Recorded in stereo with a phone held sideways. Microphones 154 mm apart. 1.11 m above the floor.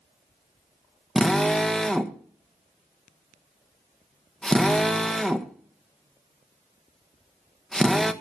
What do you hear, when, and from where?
1.1 s a drill: 5° left (ahead or behind), 1.3 m